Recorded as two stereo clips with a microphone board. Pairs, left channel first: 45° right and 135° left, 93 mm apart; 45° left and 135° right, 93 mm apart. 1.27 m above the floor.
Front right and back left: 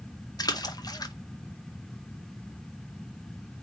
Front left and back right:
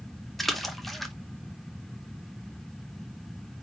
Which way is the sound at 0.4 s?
45° right.